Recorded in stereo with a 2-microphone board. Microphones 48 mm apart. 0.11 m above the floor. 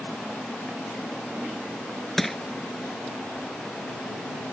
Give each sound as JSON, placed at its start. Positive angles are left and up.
{"t": 2.2, "sound": "crushing", "side_deg": 5}